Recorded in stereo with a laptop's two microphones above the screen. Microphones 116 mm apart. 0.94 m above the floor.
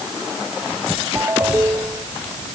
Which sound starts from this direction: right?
A ringtone, at 1.1 s.